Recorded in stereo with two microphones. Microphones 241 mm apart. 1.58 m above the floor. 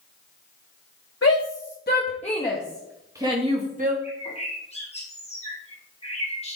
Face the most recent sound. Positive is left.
turn(degrees=25)  # may be behind; listen again after turning